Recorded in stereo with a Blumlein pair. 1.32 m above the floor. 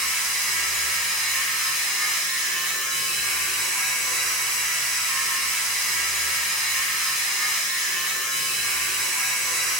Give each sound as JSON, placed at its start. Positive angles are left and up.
{"t": 0.0, "sound": "a machine running", "azimuth_deg": -5, "distance_m": 0.9}